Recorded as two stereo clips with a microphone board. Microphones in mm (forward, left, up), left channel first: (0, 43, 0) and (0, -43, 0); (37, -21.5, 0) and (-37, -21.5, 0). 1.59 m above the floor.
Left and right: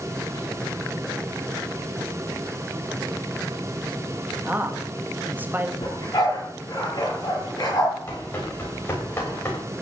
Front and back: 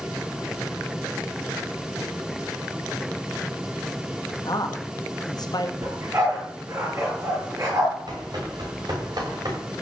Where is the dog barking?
135° left, 9.5 m.